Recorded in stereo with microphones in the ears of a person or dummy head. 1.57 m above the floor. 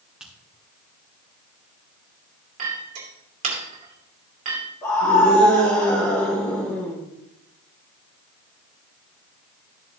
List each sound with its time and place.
0.2 s a finger snap: centre (ahead or behind), 3.5 m
2.6 s a clink: 35° right (ahead or behind), 2.5 m
4.8 s a scream: 25° left (ahead or behind), 3 m